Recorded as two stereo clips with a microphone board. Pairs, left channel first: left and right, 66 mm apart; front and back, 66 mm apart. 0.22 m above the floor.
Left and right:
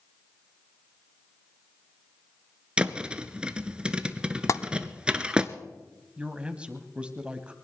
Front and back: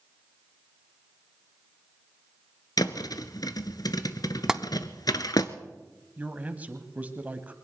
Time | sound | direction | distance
2.8 | a thud | 15° right | 0.9 m
4.5 | tapping | 100° left | 0.6 m
6.2 | a man speaking | 145° right | 1.4 m